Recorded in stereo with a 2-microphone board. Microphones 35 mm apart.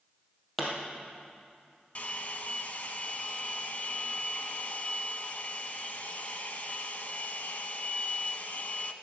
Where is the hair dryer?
45° left (ahead or behind), 0.7 m.